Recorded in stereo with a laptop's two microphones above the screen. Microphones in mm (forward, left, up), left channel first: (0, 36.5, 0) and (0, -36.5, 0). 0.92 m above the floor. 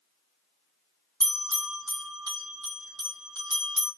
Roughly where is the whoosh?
I don't hear a whoosh.